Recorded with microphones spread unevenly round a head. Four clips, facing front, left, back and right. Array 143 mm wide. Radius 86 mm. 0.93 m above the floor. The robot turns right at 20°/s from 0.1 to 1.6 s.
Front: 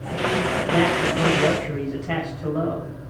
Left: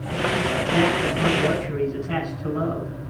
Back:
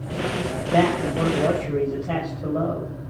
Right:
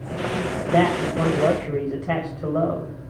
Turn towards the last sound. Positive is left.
turn(degrees=-115)